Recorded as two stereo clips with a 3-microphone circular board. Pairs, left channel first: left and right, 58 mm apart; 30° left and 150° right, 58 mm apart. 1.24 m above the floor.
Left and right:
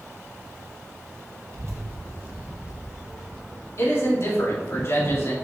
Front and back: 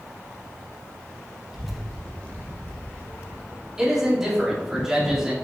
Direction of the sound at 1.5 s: 70° right.